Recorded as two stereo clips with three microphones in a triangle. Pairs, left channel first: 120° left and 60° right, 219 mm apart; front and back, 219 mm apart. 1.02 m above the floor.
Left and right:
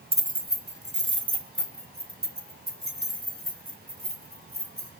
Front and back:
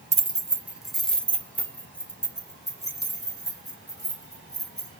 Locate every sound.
0.1 s keys jangling: 120° right, 0.7 m; by 4.9 s 75° right, 5.5 m